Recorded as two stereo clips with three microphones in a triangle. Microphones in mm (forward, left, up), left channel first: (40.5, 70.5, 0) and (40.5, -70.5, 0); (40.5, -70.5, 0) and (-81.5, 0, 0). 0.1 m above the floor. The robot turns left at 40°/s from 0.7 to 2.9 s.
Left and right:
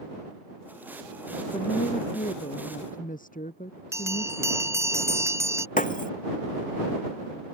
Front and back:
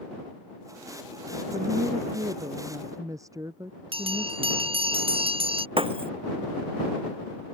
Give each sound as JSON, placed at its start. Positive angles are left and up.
{"t": 1.5, "sound": "a woman speaking", "azimuth_deg": 140}
{"t": 3.9, "sound": "a bell", "azimuth_deg": -160}
{"t": 5.8, "sound": "breaking glass", "azimuth_deg": 105}